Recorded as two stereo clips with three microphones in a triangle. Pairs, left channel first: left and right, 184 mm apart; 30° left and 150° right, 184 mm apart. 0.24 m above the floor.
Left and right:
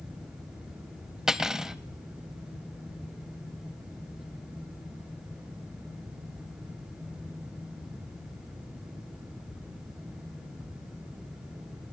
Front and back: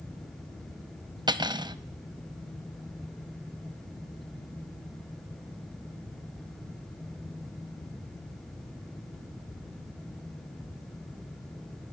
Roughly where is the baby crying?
No baby crying in this recording.